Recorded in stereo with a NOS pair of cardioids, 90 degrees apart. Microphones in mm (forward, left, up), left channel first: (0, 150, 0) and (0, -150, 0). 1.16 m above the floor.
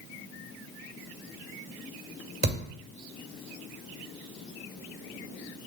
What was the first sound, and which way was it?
A thud, 30° right.